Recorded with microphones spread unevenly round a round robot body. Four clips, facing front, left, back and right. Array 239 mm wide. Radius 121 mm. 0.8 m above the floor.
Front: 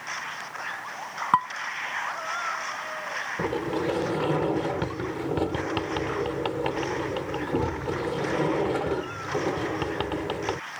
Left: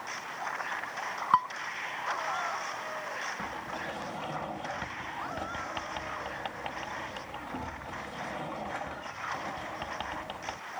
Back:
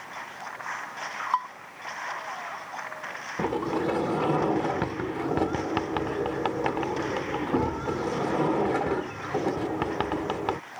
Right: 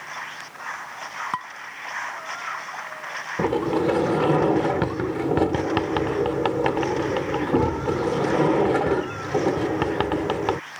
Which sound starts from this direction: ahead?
Dishes clattering, at 1.3 s.